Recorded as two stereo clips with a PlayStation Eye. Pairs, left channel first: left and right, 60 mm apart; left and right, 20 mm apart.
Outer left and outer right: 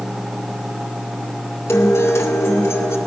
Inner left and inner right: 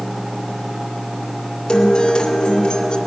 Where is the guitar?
50° left (ahead or behind), 2 m.